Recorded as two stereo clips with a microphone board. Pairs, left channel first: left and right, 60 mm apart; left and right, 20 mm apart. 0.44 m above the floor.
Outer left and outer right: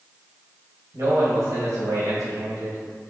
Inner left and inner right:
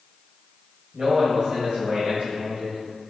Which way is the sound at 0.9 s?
50° right (ahead or behind).